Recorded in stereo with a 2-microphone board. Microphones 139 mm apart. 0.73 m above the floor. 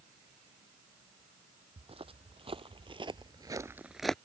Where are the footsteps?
45° right (ahead or behind); by 4.2 s 5° left (ahead or behind).